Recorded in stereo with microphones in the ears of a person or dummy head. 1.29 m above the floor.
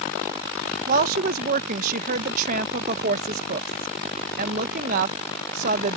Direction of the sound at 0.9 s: 50° right (ahead or behind).